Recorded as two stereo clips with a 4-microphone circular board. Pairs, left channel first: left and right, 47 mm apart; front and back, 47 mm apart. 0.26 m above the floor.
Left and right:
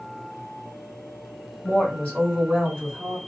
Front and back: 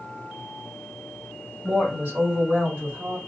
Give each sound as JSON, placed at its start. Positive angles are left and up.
{"t": 1.6, "sound": "a woman speaking", "azimuth_deg": 150, "distance_m": 1.9}